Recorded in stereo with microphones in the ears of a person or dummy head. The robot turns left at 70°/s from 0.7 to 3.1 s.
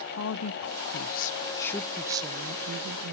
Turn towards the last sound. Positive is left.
turn(degrees=-80)